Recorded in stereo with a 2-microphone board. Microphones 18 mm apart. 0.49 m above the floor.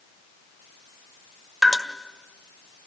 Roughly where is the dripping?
Centre.